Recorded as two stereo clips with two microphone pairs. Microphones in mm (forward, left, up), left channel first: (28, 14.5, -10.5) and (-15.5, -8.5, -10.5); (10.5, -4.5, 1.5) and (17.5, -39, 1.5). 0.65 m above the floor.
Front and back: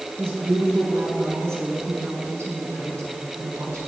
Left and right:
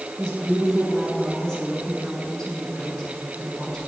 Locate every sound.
0.2 s a woman speaking: straight behind, 6 m